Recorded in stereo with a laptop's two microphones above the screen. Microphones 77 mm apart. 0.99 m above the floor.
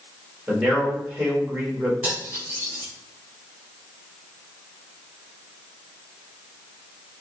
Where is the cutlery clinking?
20° right (ahead or behind), 2.5 m.